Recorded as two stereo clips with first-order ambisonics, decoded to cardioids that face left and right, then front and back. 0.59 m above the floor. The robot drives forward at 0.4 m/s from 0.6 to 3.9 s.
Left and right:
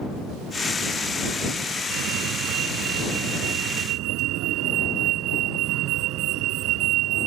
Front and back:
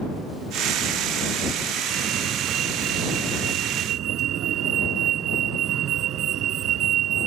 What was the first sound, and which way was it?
A fire alarm, 125° right.